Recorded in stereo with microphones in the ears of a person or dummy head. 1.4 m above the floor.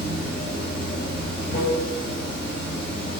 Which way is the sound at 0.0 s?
55° left (ahead or behind).